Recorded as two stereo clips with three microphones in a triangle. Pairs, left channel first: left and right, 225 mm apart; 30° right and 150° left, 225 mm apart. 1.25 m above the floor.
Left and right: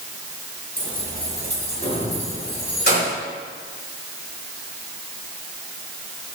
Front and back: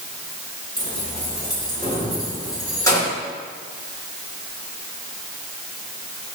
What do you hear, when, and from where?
0.8 s keys jangling: 35° left, 2 m; by 3.1 s 45° left, 3.5 m